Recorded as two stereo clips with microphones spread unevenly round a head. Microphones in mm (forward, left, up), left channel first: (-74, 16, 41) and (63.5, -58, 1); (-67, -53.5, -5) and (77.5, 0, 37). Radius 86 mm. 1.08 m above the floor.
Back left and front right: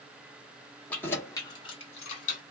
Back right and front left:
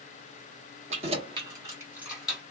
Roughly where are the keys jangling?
Left.